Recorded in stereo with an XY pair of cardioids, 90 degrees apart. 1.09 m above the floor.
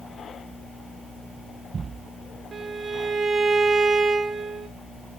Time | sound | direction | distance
2.5 | a violin | 35° right | 0.8 m